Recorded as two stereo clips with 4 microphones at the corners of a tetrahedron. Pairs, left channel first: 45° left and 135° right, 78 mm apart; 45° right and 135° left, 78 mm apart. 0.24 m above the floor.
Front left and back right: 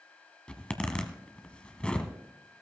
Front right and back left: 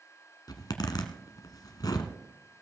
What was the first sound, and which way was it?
A zipper, 30° right.